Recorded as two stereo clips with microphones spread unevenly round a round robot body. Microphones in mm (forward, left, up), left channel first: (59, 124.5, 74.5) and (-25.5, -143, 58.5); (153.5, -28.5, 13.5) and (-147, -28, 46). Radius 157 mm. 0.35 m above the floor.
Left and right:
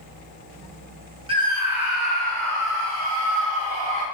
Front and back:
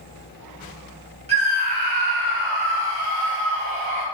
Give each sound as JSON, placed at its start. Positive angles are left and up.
{"t": 1.3, "sound": "a scream", "azimuth_deg": -125, "distance_m": 1.4}